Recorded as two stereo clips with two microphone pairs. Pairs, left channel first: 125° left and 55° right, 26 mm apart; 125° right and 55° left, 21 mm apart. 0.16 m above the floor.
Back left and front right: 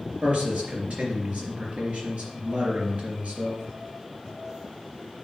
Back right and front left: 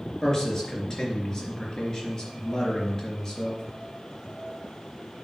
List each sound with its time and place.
0.2 s a man speaking: 60° right, 3.5 m